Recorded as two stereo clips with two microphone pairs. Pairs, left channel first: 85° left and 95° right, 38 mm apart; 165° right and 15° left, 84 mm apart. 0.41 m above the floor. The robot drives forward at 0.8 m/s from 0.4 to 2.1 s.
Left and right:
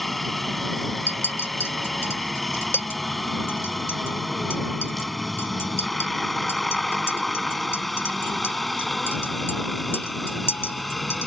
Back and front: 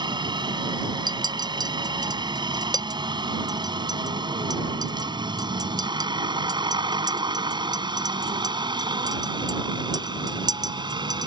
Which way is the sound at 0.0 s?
5° right.